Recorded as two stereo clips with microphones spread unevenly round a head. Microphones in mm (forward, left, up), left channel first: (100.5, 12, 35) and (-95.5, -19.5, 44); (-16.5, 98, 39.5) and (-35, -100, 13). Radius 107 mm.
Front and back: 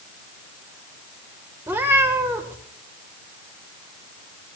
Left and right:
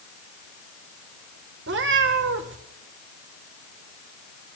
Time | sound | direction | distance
1.7 | a cat meowing | 100° right | 1.2 m